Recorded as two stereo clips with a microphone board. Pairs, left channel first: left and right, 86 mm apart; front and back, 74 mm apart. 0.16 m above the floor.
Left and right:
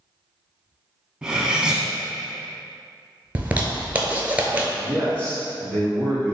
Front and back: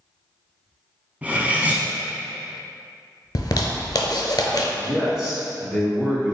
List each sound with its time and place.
1.2 s cutlery clinking: 155° right, 0.6 m
3.4 s a zipper: 20° right, 0.6 m
4.8 s a man speaking: 110° left, 1.4 m